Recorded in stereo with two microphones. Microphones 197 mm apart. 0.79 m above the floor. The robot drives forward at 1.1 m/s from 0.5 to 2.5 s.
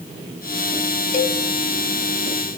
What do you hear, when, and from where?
1.1 s a cowbell: 35° left (ahead or behind), 0.9 m; by 1.4 s 30° left (ahead or behind), 1.1 m